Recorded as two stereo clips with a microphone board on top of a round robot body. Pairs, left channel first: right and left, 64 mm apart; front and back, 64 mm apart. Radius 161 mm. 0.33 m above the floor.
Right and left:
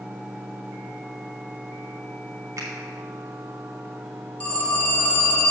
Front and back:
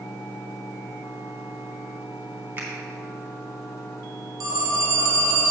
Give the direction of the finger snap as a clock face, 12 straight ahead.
8 o'clock.